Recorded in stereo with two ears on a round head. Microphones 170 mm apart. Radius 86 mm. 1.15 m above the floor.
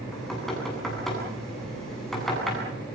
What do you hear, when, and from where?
0.1 s knocking: centre (ahead or behind), 9 m